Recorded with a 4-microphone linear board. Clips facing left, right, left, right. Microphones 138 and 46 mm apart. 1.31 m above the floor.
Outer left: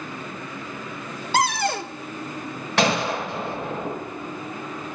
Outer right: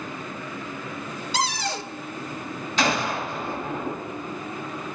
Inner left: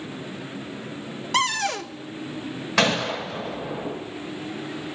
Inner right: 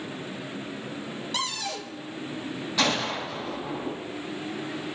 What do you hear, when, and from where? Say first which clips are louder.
1.3 s a cupboard door: outer left 6 dB, inner left 10 dB; 55° left (ahead or behind), 0.6 m
2.8 s a gunshot: outer left 3 dB, inner left 4 dB; 75° left (ahead or behind), 6 m